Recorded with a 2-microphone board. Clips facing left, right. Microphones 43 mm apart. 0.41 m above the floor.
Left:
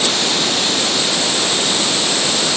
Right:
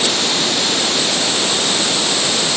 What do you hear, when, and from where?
Only background noise.